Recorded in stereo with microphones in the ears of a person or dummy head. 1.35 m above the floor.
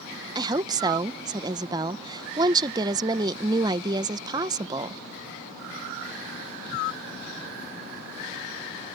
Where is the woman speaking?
30° right (ahead or behind).